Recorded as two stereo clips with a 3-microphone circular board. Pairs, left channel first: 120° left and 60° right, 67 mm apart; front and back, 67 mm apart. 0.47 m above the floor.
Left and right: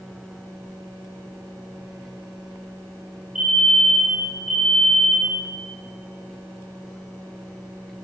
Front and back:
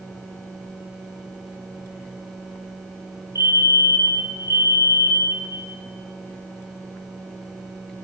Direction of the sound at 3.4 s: 20° left.